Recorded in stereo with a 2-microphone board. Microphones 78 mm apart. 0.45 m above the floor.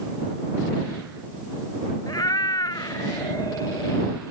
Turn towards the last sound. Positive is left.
turn(degrees=55)  # may be behind; listen again after turning